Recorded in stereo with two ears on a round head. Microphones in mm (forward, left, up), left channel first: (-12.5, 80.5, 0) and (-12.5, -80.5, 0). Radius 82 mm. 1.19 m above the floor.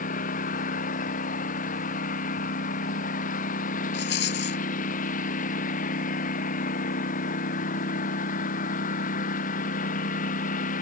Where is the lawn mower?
50° left (ahead or behind).